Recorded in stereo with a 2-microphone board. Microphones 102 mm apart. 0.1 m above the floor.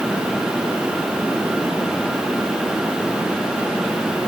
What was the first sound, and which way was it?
Only background noise.